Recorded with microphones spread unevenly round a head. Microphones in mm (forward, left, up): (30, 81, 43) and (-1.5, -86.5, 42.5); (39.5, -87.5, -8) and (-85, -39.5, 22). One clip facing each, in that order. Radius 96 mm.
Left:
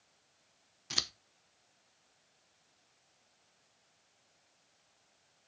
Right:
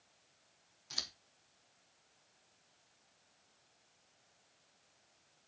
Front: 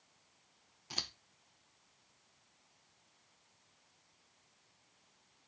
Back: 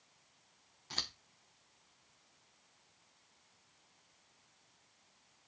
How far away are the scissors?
About 0.9 m.